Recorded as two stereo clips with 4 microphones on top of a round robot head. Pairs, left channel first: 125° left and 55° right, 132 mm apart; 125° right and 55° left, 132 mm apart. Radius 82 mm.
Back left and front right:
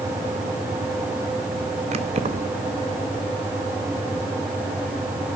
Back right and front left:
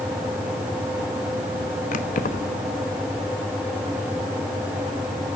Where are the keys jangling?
100° right, 1.3 m.